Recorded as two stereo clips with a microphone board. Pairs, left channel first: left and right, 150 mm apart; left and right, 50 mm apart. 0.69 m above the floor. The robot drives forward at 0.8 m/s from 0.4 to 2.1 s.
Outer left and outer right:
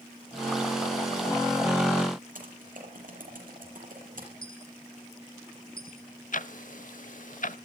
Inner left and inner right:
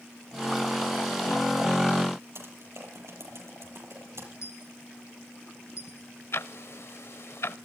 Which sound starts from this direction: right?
Typing on a keyboard, at 2.4 s.